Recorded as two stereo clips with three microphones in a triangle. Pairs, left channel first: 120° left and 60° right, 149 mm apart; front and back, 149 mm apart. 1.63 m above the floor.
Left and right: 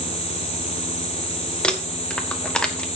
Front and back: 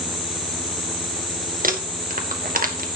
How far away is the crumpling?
About 1.6 m.